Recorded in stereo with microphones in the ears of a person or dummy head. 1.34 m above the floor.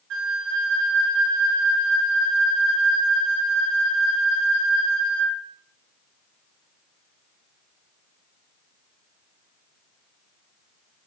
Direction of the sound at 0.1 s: 65° right (ahead or behind).